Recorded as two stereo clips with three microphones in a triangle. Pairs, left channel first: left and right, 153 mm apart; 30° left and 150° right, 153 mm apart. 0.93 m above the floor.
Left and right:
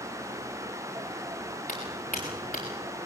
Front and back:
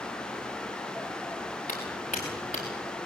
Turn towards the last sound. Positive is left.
turn(degrees=55)